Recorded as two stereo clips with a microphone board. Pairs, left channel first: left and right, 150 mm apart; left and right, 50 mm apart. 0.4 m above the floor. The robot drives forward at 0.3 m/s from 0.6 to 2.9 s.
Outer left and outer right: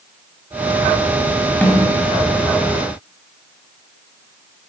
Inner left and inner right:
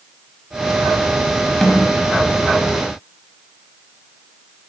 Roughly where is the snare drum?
Centre.